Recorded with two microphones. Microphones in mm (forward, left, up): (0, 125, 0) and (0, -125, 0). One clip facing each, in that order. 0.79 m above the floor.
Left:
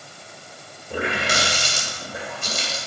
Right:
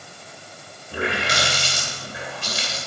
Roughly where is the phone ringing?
No phone ringing in this recording.